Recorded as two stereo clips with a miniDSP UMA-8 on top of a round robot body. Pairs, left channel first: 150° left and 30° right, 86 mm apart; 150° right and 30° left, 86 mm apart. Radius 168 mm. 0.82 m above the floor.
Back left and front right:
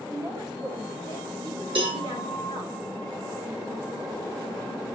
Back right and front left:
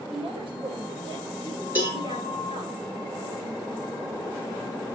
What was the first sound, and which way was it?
A woman speaking, 15° left.